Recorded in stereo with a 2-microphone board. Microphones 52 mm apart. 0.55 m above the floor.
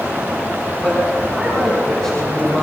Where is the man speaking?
10° left (ahead or behind), 6 m.